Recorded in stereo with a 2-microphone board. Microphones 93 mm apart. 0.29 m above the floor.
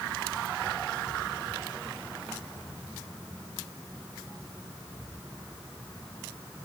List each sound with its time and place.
Only background noise.